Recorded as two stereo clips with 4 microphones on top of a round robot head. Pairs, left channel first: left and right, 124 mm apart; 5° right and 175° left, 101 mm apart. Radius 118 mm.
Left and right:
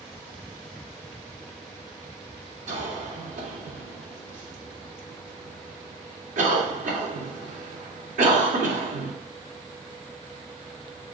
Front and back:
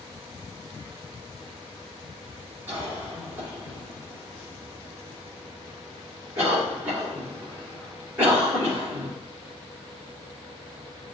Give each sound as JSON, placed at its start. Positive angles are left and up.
{"t": 2.7, "sound": "a cough", "azimuth_deg": -110, "distance_m": 2.5}